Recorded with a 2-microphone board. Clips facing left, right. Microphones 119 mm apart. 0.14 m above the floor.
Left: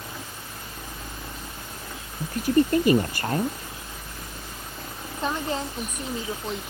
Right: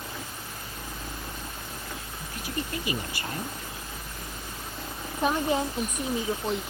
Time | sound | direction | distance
2.2 | a woman speaking | 50° left (ahead or behind) | ?
5.2 | a woman speaking | 15° right (ahead or behind) | ?